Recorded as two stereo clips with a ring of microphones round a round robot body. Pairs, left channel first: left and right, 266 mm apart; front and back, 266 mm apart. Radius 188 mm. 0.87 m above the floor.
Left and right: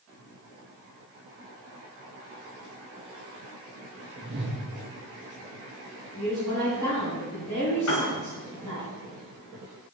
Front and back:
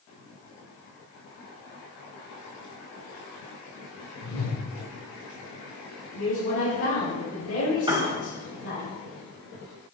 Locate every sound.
4.2 s a whoosh: 10° right, 2.5 m
6.1 s a woman speaking: 30° left, 3.5 m
7.9 s a piano: 105° left, 2 m